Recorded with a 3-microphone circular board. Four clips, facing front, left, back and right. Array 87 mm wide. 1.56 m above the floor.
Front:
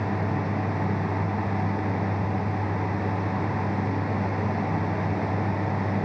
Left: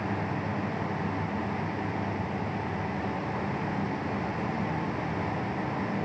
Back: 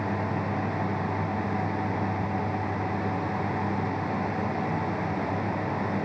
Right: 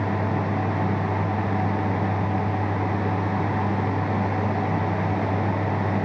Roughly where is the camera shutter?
I don't hear a camera shutter.